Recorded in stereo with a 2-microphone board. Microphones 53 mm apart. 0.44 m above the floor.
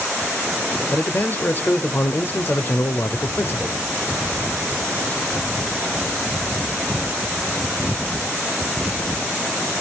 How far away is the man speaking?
About 1.1 m.